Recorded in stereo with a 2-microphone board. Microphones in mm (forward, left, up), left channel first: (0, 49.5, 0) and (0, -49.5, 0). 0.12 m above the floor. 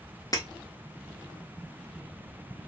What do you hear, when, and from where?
0.3 s breaking glass: 35° left (ahead or behind), 1.0 m